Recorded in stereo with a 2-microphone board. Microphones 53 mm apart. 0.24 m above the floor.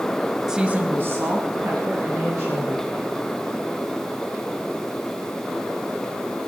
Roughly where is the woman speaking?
Centre.